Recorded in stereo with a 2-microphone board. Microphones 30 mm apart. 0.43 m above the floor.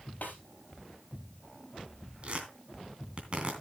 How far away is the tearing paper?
About 3 m.